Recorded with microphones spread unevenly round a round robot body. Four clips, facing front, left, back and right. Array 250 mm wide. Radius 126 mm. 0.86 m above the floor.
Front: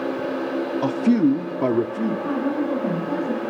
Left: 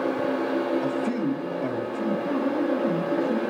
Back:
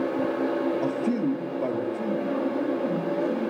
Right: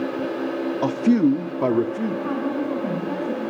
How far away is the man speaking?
About 0.9 m.